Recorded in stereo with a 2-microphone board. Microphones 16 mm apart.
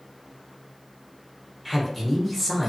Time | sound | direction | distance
1.6 | a man speaking | centre (ahead or behind) | 0.9 m